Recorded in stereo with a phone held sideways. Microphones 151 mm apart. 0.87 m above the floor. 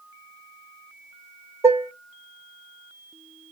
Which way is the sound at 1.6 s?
15° right (ahead or behind).